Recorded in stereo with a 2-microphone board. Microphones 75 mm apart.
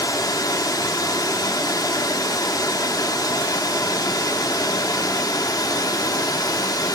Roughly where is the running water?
Left.